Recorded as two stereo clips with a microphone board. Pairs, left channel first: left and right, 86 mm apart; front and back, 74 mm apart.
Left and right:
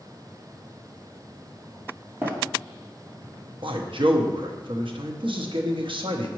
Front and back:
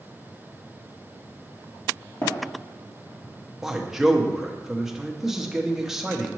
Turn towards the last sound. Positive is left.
turn(degrees=-95)